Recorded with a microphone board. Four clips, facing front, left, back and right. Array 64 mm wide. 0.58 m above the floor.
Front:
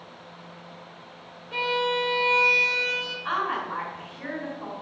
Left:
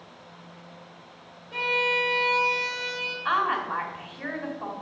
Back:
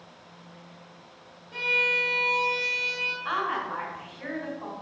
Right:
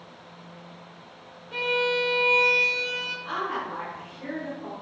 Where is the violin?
20° right, 2 m.